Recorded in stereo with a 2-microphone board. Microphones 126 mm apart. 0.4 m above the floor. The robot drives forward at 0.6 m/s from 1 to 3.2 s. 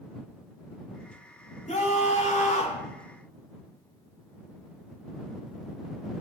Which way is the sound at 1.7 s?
75° left (ahead or behind).